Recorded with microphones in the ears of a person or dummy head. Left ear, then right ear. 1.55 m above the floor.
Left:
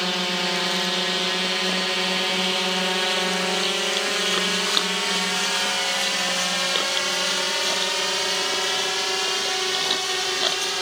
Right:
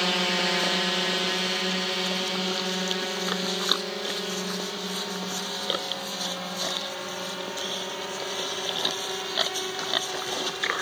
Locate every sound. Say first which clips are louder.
0.0 s a drone: left 1 dB; 5° right (ahead or behind); by 10.8 s 80° left